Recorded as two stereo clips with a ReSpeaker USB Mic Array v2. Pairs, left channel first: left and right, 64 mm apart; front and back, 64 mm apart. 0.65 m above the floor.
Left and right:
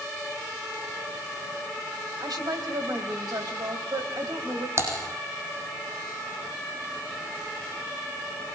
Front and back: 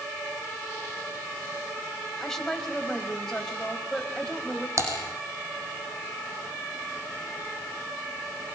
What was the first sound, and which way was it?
A woman speaking, 80° right.